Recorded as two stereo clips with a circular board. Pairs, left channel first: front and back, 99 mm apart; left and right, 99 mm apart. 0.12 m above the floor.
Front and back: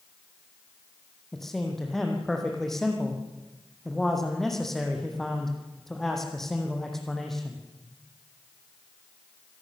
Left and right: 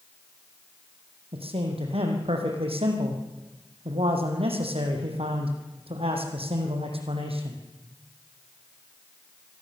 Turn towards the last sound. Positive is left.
turn(degrees=-85)